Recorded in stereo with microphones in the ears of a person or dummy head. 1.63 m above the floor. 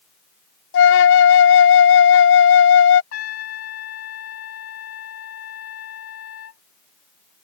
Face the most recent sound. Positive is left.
turn(degrees=65)  # may be behind; listen again after turning